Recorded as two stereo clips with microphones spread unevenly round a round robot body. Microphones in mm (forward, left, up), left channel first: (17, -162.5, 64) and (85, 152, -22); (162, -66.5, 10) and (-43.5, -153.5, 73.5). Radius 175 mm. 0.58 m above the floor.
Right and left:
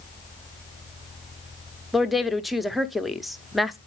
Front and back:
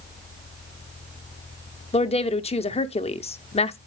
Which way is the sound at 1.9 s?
5° left.